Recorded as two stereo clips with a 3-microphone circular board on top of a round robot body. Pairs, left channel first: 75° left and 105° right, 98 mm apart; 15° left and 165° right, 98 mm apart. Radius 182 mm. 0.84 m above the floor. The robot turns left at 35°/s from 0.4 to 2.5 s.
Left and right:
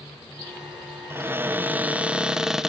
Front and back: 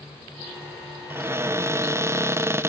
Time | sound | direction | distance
1.1 | a cupboard door | 135° right | 0.7 m